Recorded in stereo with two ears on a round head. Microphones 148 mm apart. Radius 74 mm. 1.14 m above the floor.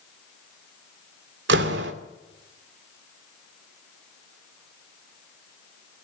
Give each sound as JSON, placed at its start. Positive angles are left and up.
{"t": 1.5, "sound": "a door slam", "side_deg": -80, "distance_m": 3.0}